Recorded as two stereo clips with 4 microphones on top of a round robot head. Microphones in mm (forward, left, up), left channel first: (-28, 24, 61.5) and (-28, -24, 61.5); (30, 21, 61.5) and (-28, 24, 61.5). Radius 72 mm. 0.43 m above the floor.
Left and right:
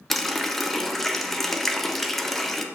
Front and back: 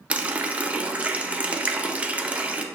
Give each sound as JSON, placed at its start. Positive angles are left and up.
{"t": 0.1, "sound": "a running tap", "azimuth_deg": 165, "distance_m": 0.5}